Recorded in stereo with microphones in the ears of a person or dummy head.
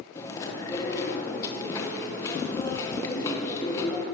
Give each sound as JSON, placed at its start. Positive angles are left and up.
{"t": 0.1, "sound": "chewing", "side_deg": 25, "distance_m": 1.1}